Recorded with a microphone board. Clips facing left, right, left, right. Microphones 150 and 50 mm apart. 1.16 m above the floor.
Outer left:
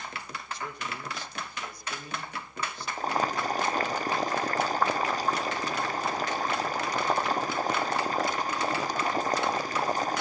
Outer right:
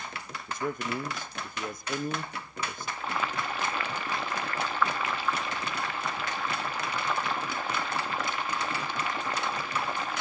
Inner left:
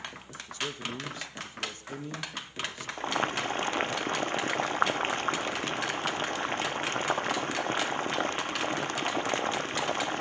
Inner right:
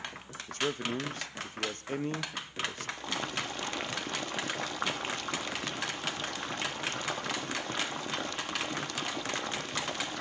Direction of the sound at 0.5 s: 50° right (ahead or behind).